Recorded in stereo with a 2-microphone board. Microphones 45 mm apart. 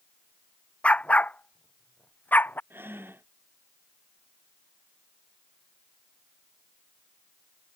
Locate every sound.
0.8 s a dog barking: 30° left (ahead or behind); by 2.6 s 45° left (ahead or behind)
2.7 s breathing: 55° right (ahead or behind)